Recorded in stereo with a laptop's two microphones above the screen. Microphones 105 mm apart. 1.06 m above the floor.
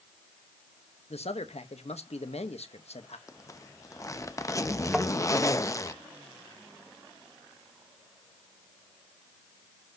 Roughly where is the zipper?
Left.